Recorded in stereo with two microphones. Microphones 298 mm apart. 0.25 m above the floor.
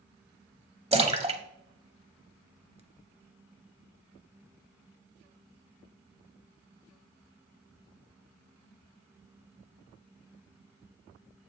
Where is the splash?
20° right (ahead or behind), 0.9 m.